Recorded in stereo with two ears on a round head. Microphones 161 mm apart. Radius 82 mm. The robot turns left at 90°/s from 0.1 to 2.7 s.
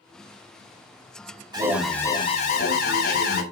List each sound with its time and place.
1.5 s an alarm: 150° right, 3.5 m; by 3.4 s 105° left, 3.5 m